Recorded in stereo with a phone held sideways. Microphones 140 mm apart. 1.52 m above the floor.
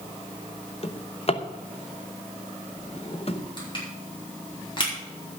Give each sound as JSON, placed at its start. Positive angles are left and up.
{"t": 0.8, "sound": "a drawer", "side_deg": 45, "distance_m": 0.9}
{"t": 3.6, "sound": "crushing", "side_deg": 35, "distance_m": 5.0}